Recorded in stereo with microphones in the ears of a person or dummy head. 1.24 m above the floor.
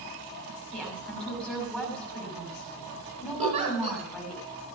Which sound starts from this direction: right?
A giggle, at 3.4 s.